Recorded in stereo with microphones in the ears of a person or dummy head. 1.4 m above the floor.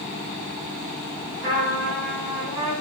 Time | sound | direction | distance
1.4 | a trumpet | 55° right (ahead or behind) | 2 m